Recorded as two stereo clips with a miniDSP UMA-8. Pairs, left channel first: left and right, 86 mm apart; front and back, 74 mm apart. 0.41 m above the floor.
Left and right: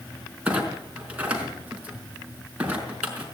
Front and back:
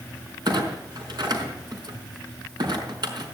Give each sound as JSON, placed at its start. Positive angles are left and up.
{"t": 0.5, "sound": "a clunk", "azimuth_deg": -165, "distance_m": 4.5}